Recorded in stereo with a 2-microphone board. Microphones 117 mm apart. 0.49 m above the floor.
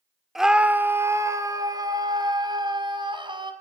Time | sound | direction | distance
0.3 | a scream | 5° right (ahead or behind) | 1.5 m